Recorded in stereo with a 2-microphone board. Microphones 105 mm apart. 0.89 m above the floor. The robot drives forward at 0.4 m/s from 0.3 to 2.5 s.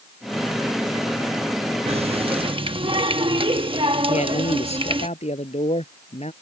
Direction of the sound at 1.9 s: 70° right (ahead or behind).